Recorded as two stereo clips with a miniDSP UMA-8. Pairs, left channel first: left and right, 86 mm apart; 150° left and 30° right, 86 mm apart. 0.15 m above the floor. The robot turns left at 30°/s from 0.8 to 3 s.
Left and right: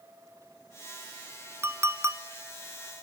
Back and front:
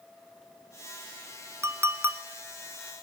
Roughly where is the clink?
Ahead right.